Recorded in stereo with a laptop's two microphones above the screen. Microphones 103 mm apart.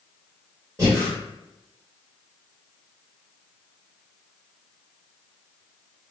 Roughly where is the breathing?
Right.